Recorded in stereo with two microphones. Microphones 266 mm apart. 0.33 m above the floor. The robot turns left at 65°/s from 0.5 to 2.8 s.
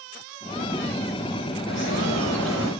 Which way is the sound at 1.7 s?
55° left.